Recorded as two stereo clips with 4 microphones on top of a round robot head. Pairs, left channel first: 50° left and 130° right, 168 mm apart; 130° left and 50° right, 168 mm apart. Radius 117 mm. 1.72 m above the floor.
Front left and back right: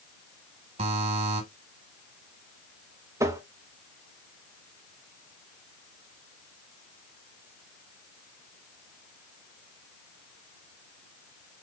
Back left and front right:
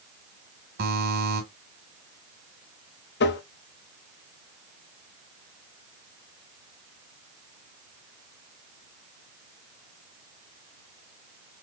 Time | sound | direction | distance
0.8 | a buzzer | 80° right | 2.5 m
3.2 | tapping | 155° left | 0.7 m